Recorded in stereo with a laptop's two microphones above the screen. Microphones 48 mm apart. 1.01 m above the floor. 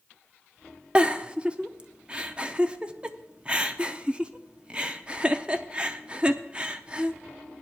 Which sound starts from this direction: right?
A giggle, at 0.9 s.